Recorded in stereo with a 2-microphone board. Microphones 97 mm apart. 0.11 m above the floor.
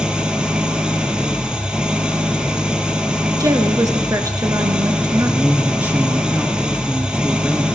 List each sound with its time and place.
0.0 s an engine running: 10° right (ahead or behind), 1.0 m
3.4 s a woman speaking: 35° right (ahead or behind), 1.3 m
5.2 s a man speaking: 20° right (ahead or behind), 1.2 m